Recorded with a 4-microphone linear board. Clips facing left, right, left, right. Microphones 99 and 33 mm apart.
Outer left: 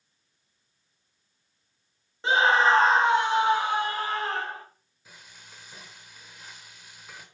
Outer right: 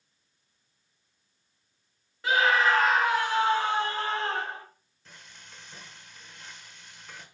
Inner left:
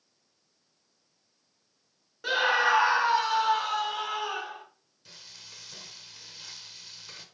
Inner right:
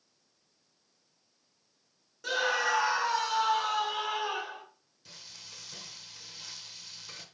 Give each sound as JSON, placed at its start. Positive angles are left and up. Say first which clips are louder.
{"t": 2.2, "sound": "a scream", "louder": "outer left 2 dB, inner left 5 dB", "side_deg": 30, "distance_m": 0.8}
{"t": 5.0, "sound": "frying", "louder": "even, even", "side_deg": 5, "distance_m": 1.3}